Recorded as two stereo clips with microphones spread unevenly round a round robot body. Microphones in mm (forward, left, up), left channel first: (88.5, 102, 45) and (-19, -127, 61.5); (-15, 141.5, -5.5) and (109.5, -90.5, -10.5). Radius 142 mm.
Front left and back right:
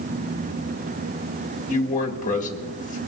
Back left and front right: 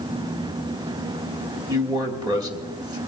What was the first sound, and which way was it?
A man speaking, 10° left.